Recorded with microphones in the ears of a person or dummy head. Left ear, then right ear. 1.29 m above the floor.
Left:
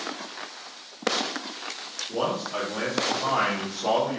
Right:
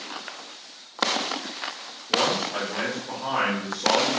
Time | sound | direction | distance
2.1 | a man speaking | 50° left (ahead or behind) | 1.0 m